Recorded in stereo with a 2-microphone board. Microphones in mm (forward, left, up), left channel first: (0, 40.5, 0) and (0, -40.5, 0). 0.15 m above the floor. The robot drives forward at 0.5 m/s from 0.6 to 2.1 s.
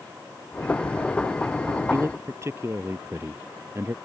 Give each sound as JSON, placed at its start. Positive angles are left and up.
{"t": 1.9, "sound": "a man speaking", "side_deg": -35}